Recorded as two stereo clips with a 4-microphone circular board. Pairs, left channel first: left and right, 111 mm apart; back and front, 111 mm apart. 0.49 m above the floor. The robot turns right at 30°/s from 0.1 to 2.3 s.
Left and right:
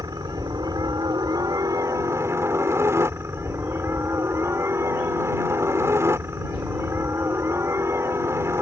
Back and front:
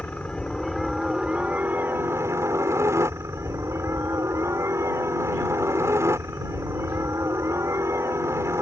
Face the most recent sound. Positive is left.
turn(degrees=-45)